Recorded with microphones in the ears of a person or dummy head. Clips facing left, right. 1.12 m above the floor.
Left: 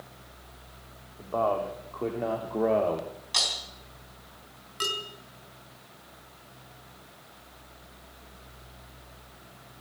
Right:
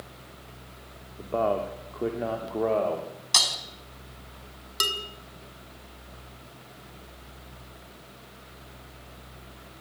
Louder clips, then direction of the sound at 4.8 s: Even; 55° right (ahead or behind).